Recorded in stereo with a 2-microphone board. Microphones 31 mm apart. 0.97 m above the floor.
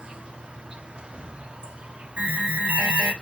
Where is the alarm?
40° right (ahead or behind), 5.5 m.